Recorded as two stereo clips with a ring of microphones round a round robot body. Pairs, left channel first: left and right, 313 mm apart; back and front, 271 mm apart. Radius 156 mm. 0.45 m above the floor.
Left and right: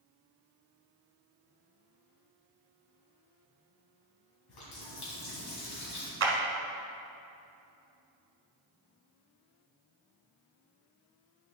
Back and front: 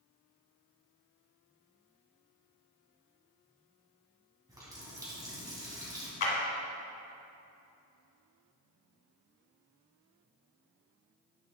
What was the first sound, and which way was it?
A running tap, 75° left.